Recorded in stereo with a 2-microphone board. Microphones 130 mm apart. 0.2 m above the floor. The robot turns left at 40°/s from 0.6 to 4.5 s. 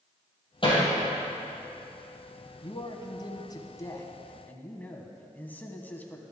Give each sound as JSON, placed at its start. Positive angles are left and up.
{"t": 0.6, "sound": "hammering", "side_deg": 40, "distance_m": 4.0}
{"t": 2.6, "sound": "a man speaking", "azimuth_deg": 100, "distance_m": 1.4}